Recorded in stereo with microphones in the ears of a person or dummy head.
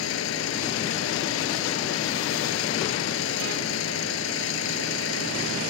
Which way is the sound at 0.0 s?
70° left (ahead or behind).